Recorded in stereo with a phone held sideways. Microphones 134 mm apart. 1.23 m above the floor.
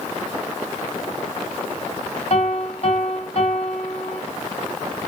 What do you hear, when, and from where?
2.3 s a piano: 55° left (ahead or behind), 1.7 m